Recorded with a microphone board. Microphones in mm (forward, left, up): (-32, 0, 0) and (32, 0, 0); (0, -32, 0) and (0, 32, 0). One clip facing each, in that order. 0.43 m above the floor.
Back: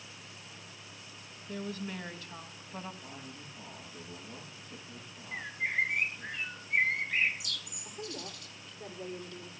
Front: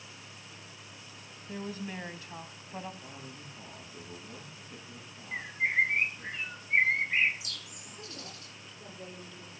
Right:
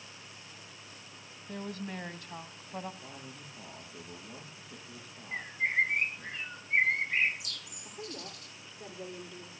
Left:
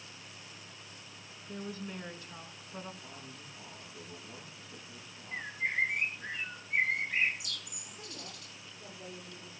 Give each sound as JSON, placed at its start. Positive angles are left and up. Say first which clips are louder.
{"t": 1.5, "sound": "a woman speaking", "louder": "even, right 2 dB", "azimuth_deg": -70, "distance_m": 3.0}
{"t": 3.0, "sound": "a man speaking", "louder": "even, right 2 dB", "azimuth_deg": -70, "distance_m": 8.0}
{"t": 5.3, "sound": "a bird", "louder": "front 4 dB, right 3 dB", "azimuth_deg": -50, "distance_m": 5.0}
{"t": 7.8, "sound": "a woman speaking", "louder": "back 5 dB, right 9 dB", "azimuth_deg": -110, "distance_m": 9.5}